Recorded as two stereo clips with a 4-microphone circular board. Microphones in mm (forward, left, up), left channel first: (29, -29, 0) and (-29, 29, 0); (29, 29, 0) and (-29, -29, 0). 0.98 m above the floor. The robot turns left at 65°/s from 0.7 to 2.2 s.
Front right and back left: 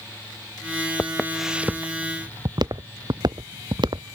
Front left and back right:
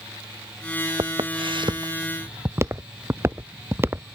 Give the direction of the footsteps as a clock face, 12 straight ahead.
4 o'clock.